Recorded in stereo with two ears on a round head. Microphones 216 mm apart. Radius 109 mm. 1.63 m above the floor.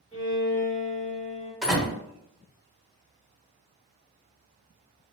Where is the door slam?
5° right (ahead or behind), 1.2 m.